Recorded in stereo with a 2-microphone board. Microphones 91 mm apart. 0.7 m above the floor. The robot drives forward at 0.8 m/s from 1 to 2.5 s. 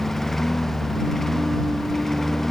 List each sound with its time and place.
0.0 s a lawn mower: 5° left (ahead or behind)